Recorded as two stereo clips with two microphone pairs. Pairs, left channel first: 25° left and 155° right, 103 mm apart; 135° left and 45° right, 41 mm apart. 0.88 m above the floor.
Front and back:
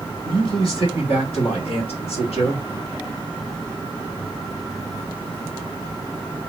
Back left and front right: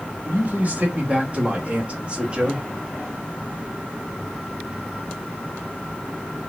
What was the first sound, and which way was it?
A man speaking, straight ahead.